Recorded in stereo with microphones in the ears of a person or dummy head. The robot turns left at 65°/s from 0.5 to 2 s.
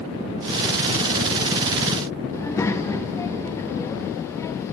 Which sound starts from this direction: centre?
A child speaking, at 2.3 s.